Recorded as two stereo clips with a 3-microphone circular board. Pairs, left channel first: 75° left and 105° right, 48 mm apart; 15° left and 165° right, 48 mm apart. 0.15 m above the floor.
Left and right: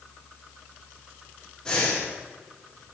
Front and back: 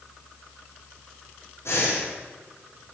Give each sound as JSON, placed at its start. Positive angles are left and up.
{"t": 1.6, "sound": "breathing", "azimuth_deg": 0, "distance_m": 4.5}